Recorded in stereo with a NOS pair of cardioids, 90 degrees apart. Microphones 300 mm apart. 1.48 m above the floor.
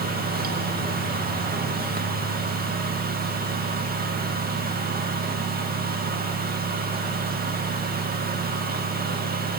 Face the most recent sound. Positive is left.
turn(degrees=-30)